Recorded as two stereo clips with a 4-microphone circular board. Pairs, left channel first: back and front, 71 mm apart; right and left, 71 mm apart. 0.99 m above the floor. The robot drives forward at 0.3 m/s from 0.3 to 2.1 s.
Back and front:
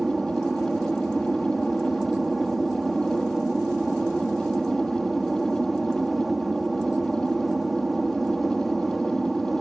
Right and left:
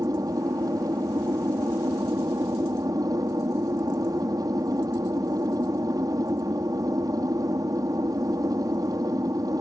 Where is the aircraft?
85° left.